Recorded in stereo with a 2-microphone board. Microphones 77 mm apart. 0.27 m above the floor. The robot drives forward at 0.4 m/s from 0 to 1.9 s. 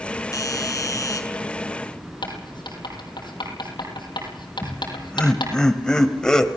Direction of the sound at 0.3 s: 45° left (ahead or behind).